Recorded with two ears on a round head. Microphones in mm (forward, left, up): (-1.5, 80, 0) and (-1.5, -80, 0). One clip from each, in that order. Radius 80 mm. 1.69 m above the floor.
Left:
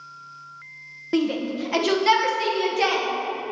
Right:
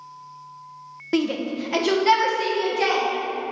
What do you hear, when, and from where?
1.1 s a shout: 15° right (ahead or behind), 0.6 m; by 3.0 s 20° left (ahead or behind), 1.5 m